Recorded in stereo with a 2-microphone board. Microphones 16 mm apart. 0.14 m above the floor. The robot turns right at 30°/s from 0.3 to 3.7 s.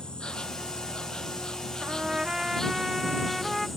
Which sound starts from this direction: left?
An insect, at 0.0 s.